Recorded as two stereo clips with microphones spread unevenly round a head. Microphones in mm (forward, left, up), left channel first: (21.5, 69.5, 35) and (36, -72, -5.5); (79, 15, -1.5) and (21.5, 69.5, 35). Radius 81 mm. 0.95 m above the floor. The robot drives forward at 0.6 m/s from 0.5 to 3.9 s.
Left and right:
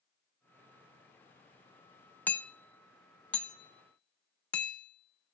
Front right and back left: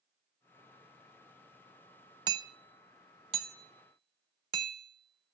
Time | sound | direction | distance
2.3 | hammering | 170° right | 0.5 m